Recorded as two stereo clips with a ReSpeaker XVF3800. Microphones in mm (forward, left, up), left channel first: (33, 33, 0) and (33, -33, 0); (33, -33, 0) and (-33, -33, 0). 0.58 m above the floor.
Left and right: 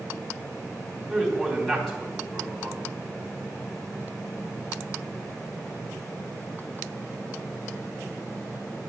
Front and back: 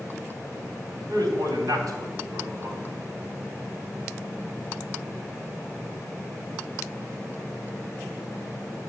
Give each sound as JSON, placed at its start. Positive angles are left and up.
{"t": 1.1, "sound": "a man speaking", "azimuth_deg": 175, "distance_m": 3.5}